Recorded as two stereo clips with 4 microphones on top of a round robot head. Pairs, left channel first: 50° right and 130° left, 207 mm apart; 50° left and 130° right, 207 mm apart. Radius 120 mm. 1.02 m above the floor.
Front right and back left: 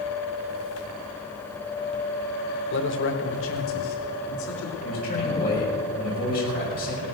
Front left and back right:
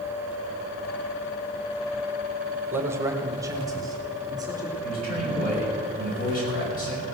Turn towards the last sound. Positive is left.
turn(degrees=0)